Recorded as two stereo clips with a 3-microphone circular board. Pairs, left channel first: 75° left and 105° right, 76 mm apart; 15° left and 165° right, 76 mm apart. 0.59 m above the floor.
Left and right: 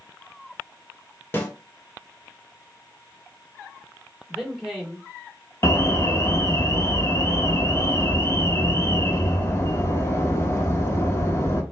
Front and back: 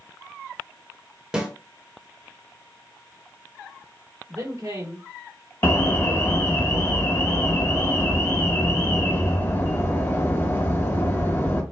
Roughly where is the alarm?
Ahead left.